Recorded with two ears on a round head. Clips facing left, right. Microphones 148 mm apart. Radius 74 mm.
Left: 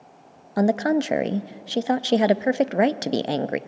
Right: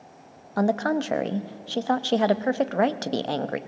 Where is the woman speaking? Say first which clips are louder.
Left 3 dB; 20° left (ahead or behind), 0.5 m.